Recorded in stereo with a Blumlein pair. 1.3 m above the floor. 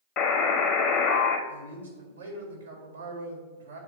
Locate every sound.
0.2 s a buzzer: 35° left, 0.8 m
1.5 s a man speaking: 70° right, 2 m